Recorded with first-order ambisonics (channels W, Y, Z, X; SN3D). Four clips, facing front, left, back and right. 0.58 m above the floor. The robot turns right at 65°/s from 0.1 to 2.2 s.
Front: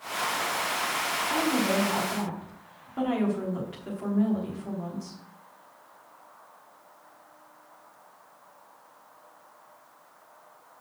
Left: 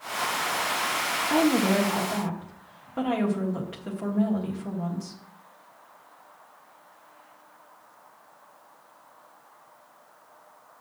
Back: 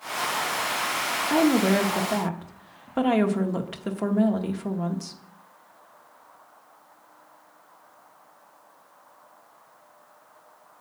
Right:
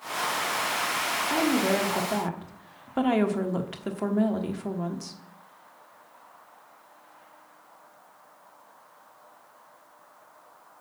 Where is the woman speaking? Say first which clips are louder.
Left 3 dB, back 7 dB; 155° left, 1.0 m; by 5.2 s 150° right, 1.0 m.